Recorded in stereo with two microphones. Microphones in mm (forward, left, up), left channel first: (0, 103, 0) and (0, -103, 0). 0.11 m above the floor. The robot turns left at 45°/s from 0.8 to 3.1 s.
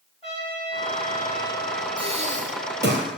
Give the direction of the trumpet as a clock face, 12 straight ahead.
7 o'clock.